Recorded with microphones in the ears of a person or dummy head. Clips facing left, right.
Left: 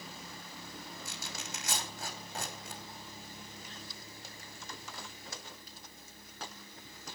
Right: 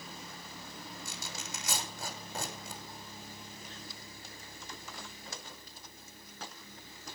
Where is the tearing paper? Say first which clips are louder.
Even; 85° right, 6 m.